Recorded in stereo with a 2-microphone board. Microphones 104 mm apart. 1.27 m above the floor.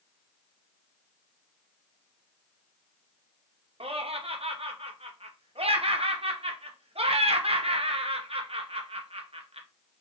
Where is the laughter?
65° right (ahead or behind), 0.6 m.